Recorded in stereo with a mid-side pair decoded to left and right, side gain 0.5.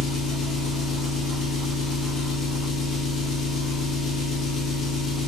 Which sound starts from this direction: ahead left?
An engine running, at 0.0 s.